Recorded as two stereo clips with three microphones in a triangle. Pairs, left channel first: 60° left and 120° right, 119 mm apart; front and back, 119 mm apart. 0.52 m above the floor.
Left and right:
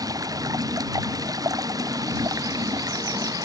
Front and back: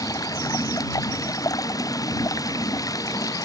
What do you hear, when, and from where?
0.0 s running water: 60° right